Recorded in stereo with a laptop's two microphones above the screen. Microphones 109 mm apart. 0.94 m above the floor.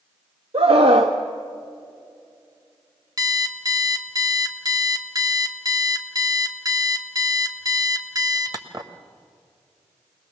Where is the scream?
65° right (ahead or behind), 1.0 m.